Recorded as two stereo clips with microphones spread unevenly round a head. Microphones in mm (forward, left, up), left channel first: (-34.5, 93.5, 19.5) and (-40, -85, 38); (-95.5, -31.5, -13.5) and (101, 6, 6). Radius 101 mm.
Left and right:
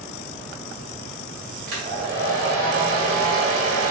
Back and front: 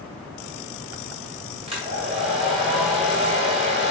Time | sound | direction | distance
1.7 | a hair dryer | 45° right | 2 m